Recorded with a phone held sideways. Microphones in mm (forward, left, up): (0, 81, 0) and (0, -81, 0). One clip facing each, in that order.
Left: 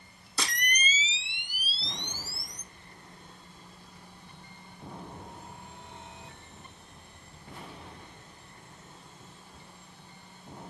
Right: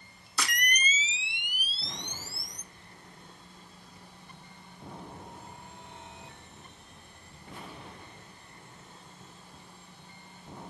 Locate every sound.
0.4 s a camera shutter: 30° left (ahead or behind), 0.8 m